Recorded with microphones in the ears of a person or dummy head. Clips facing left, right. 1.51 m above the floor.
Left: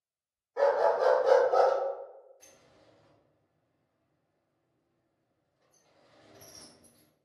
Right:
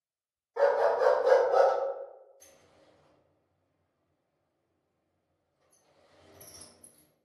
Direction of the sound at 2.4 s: 50° right (ahead or behind).